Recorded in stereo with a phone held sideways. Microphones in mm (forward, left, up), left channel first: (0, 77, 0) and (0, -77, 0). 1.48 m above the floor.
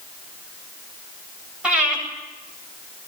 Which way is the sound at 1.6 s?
5° right (ahead or behind).